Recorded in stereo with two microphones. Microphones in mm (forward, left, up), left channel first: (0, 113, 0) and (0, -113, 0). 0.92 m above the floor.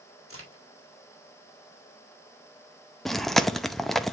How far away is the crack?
About 2.5 m.